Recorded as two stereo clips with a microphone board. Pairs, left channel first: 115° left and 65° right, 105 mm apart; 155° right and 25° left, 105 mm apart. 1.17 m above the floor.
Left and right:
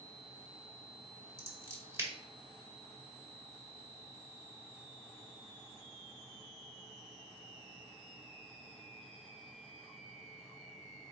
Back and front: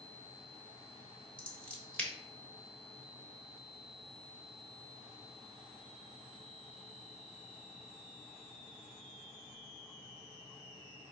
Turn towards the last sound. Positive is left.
turn(degrees=-95)